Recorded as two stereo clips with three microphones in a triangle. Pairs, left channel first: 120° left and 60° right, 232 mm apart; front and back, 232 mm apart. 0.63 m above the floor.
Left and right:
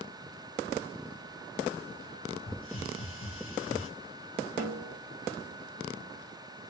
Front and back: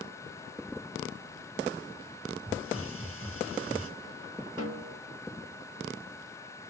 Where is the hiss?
150° left, 1.4 m.